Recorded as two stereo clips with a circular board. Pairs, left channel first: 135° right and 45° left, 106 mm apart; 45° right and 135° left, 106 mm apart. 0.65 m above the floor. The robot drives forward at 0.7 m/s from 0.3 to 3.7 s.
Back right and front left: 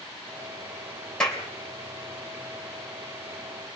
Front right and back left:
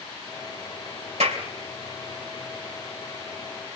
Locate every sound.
1.2 s a clap: 140° left, 3 m; by 1.4 s 145° left, 3 m